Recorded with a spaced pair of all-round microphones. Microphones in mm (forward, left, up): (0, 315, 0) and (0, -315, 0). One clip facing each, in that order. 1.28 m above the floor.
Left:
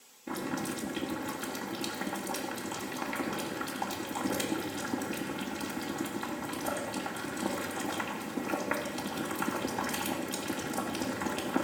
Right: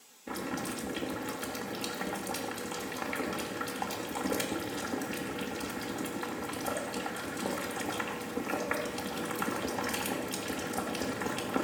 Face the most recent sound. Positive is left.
turn(degrees=-5)  # may be behind; listen again after turning